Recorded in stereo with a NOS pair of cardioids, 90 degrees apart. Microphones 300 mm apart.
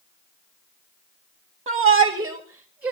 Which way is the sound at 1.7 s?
20° right.